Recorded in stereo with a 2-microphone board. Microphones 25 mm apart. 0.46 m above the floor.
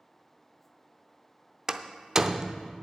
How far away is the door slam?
About 0.5 m.